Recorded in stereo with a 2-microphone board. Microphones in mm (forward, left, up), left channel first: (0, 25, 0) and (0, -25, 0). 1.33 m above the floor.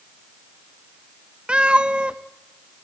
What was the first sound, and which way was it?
A cat meowing, 20° right (ahead or behind).